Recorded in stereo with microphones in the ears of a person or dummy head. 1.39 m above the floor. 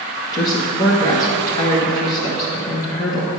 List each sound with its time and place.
0.3 s a woman speaking: 25° left (ahead or behind), 1.2 m